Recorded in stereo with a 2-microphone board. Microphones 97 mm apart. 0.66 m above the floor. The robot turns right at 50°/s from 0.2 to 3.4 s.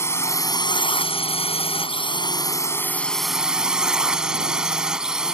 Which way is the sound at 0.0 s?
25° left.